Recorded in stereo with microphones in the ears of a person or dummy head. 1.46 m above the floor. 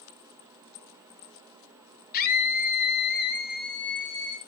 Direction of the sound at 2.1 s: 50° left (ahead or behind).